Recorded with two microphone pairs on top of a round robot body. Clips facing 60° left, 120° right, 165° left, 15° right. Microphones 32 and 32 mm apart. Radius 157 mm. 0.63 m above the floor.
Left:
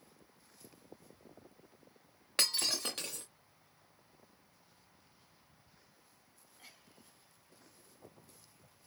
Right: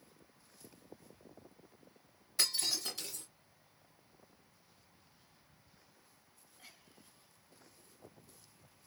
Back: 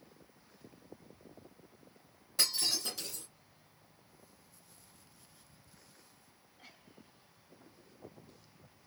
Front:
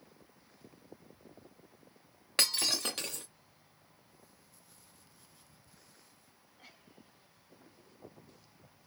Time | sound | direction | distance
2.4 | breaking glass | 25° left | 0.6 m